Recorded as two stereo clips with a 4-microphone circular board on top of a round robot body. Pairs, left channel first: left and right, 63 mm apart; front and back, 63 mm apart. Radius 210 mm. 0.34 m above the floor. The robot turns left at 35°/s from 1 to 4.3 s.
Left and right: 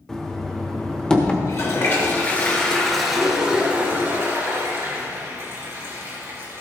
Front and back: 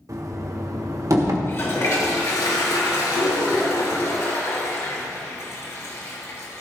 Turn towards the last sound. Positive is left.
turn(degrees=-45)